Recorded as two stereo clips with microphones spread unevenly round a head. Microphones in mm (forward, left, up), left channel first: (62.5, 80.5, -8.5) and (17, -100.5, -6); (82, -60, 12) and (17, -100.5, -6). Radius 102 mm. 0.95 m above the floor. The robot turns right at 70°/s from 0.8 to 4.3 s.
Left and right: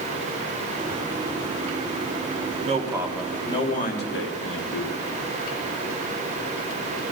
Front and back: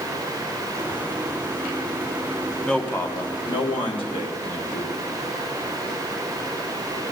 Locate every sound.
2.6 s a man speaking: 50° right, 1.6 m; by 5.0 s 65° left, 1.6 m